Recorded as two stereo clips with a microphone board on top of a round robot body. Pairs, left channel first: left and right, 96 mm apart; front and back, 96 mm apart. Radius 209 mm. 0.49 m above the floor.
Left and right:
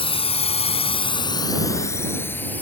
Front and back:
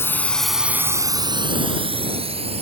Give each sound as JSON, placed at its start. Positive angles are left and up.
{"t": 0.0, "sound": "a drone", "azimuth_deg": 65}